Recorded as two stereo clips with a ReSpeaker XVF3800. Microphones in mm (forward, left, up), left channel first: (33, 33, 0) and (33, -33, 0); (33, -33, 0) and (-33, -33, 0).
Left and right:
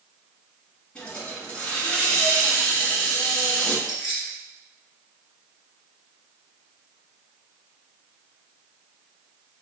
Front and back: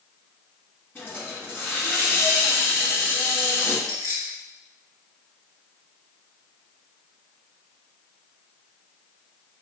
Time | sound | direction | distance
0.9 | a hiss | 25° left | 1.5 m
3.9 | keys jangling | 170° right | 1.2 m